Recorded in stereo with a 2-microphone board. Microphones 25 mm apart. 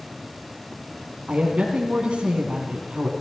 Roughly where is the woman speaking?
Right.